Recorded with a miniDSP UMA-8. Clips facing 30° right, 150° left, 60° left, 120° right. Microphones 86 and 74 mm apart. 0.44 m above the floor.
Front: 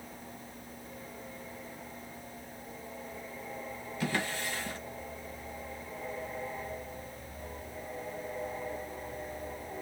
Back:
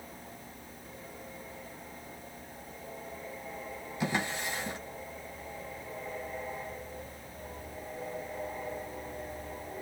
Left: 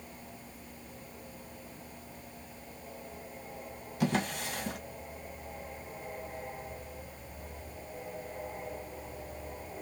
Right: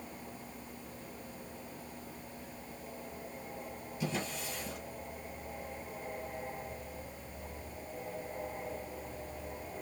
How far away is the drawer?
About 1.6 m.